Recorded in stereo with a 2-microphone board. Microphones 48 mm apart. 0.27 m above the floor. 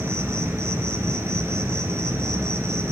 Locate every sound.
0.0 s an insect: 80° right, 1.1 m